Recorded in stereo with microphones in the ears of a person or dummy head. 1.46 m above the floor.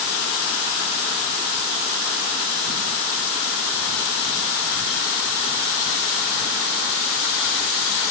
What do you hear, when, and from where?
Only background noise.